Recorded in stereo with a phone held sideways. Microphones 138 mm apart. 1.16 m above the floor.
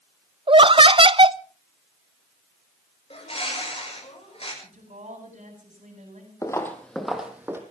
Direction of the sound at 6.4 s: 25° left (ahead or behind).